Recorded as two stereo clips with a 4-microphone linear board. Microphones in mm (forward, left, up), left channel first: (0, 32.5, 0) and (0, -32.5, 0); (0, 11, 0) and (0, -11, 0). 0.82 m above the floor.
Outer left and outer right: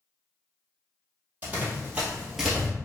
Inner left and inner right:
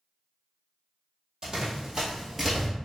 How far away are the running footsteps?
About 1.6 m.